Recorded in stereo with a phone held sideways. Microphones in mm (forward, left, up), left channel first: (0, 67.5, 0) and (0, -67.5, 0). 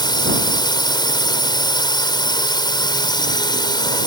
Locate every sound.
0.0 s a drone: 30° left (ahead or behind)